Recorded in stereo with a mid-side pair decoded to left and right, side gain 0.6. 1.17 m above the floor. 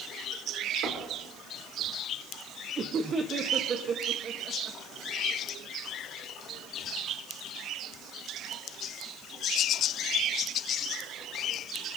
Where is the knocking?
55° right, 3.5 m.